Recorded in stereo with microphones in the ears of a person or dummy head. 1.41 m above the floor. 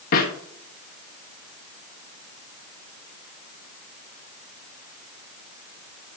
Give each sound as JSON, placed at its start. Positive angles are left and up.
{"t": 0.1, "sound": "a snare drum", "side_deg": 60, "distance_m": 1.5}